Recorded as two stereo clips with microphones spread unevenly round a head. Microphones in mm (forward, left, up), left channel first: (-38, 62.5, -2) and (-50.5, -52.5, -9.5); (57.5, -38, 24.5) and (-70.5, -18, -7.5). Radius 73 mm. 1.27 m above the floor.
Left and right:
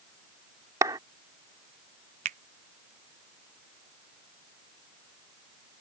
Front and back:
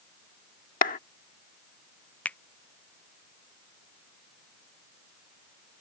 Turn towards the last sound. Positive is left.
turn(degrees=-95)